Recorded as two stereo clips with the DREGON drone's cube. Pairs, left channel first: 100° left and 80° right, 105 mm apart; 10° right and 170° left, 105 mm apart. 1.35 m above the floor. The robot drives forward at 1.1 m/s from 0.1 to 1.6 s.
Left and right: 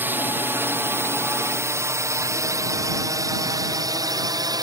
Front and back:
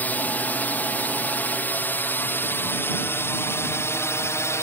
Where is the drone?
50° right; by 4.6 s 60° right.